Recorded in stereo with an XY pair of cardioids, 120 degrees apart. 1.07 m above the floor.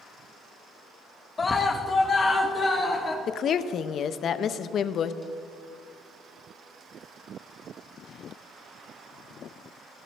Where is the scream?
25° left, 0.8 m.